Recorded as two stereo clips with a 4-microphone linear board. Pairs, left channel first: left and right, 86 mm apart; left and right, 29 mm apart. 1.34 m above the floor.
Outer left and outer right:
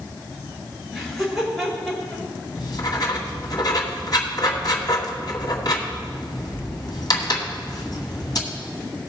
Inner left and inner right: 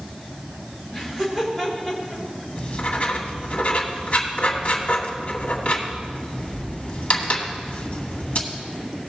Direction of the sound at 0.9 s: Centre (ahead or behind).